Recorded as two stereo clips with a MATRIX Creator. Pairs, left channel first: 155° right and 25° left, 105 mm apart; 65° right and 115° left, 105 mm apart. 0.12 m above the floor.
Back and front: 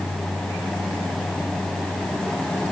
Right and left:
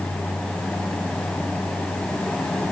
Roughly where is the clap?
I don't hear a clap.